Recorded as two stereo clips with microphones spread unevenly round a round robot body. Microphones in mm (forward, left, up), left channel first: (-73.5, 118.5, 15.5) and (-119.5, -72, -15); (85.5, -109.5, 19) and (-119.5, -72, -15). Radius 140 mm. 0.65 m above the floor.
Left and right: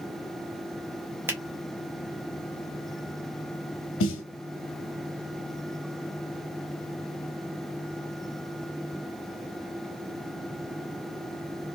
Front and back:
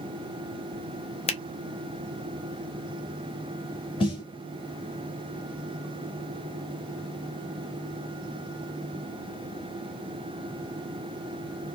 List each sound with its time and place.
1.3 s a finger snap: 55° right, 0.7 m
4.0 s a snare drum: 65° left, 0.8 m